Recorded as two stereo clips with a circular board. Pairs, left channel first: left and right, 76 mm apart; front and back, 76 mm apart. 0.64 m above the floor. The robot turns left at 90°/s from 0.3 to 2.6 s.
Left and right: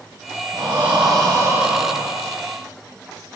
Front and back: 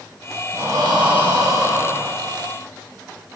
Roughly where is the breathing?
Behind right.